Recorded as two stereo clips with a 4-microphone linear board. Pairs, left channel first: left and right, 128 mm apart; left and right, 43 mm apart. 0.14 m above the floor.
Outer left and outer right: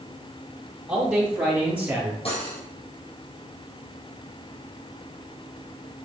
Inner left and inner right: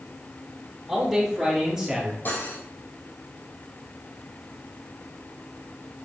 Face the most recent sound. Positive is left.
turn(degrees=50)  # may be behind; listen again after turning